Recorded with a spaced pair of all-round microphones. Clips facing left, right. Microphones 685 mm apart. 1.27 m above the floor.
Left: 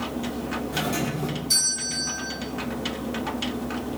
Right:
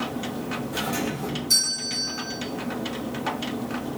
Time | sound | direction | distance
0.7 | a doorbell | 75° left (ahead or behind) | 5.5 m